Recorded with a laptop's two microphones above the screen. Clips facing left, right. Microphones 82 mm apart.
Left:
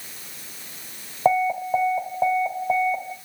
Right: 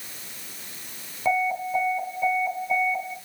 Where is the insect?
No insect in this recording.